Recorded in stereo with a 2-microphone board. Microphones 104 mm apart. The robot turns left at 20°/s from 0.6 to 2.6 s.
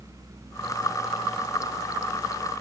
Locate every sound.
Only background noise.